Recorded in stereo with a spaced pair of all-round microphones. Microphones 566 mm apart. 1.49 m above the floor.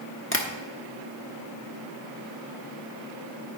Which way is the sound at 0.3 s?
25° left (ahead or behind).